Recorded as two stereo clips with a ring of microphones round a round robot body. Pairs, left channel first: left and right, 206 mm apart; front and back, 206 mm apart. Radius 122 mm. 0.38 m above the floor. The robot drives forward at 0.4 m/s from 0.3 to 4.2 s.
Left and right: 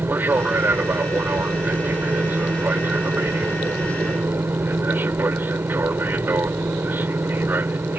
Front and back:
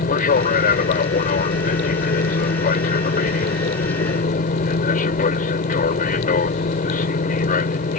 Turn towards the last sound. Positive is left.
turn(degrees=-15)